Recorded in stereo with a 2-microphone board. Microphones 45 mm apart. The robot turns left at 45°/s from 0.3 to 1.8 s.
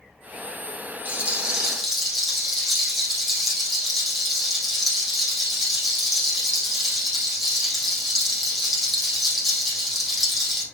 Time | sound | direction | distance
1.1 | a rattle | 145° right | 4 m